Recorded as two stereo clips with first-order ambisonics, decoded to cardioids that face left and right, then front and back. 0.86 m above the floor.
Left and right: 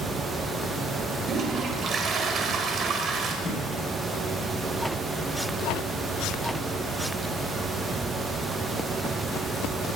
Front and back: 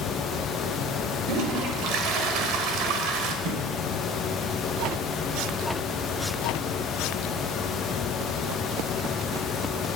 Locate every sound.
1.3 s a toilet flushing: 150° right, 1.4 m
3.5 s a thud: 160° left, 4 m